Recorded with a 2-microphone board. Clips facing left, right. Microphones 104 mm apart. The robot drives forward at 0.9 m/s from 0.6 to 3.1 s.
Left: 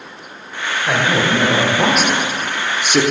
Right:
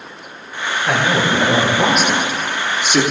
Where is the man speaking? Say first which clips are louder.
Even; 5° left (ahead or behind), 2.5 m; by 3.0 s 10° left (ahead or behind), 1.0 m.